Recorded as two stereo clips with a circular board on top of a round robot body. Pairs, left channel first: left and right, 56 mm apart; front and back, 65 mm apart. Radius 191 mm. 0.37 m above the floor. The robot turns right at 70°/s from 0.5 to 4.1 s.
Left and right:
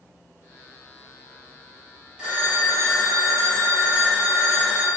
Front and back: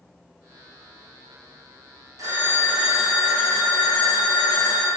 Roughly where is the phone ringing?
Behind right.